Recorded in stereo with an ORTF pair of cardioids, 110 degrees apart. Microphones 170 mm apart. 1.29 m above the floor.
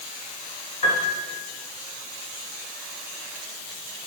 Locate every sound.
0.8 s a piano: 45° left, 2 m